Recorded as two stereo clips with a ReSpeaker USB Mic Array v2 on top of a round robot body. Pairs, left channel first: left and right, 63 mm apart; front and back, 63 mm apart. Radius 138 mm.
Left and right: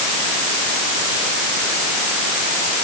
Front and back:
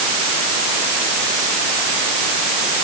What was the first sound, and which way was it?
Only background noise.